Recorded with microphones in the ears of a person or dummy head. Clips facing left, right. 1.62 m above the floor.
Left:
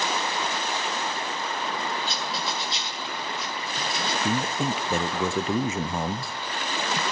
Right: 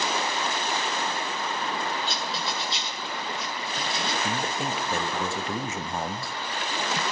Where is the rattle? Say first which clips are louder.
Even; 45° left (ahead or behind), 8 m.